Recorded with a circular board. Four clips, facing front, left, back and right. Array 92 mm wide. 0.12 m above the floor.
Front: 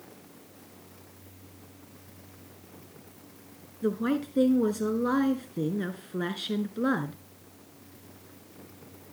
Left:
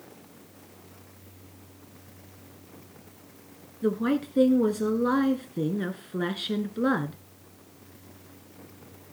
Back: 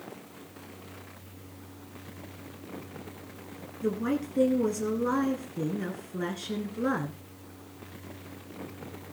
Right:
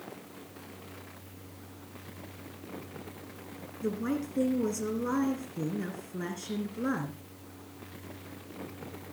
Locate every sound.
3.8 s a woman speaking: 65° left, 1.3 m